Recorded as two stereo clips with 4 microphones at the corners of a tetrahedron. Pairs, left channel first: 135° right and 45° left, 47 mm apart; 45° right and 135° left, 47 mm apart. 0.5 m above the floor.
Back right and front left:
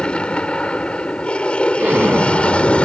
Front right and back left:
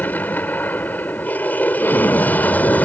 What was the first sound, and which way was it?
An aircraft, 75° right.